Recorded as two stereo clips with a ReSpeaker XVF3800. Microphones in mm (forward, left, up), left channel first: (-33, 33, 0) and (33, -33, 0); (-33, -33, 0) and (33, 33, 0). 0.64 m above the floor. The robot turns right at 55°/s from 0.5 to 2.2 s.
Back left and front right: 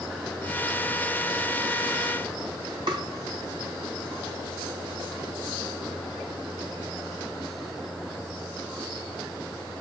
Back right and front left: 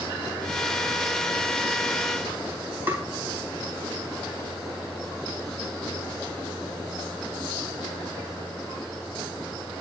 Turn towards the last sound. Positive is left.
turn(degrees=-20)